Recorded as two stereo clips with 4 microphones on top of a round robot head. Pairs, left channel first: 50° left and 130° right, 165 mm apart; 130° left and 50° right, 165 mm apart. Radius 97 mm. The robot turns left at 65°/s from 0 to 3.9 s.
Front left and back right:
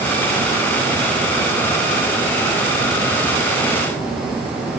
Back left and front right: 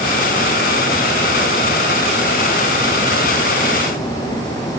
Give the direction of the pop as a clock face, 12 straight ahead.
I don't hear a pop.